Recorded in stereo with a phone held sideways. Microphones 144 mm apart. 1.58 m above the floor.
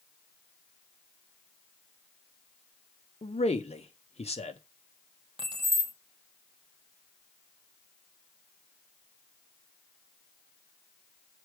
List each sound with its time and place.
3.2 s a man speaking: 45° left (ahead or behind), 1.1 m
5.4 s keys jangling: 35° right (ahead or behind), 1.5 m